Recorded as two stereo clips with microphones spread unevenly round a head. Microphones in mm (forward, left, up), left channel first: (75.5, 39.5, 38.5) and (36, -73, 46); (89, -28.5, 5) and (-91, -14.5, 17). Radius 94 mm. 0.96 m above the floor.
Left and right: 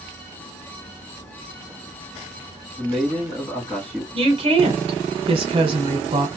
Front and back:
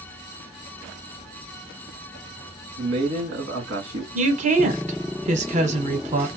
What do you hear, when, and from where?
2.8 s a man speaking: 150° left, 1.7 m
4.2 s a woman speaking: 140° right, 1.0 m